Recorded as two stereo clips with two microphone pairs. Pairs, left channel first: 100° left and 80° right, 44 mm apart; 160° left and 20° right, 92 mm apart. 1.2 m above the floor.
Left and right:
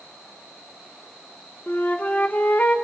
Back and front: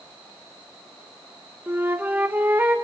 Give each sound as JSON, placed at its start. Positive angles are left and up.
{"t": 1.7, "sound": "a flute", "azimuth_deg": 50, "distance_m": 1.6}